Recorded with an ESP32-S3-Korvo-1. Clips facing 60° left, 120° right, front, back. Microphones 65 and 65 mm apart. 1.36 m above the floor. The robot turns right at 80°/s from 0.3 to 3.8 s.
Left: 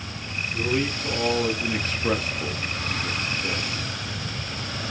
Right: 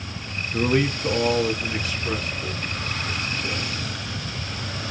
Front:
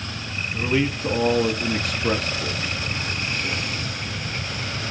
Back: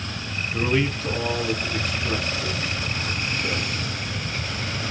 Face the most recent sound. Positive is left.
turn(degrees=160)